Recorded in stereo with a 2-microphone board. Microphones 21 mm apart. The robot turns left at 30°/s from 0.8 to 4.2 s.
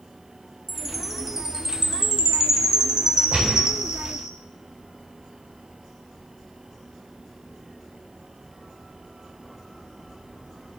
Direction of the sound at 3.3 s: 65° right (ahead or behind).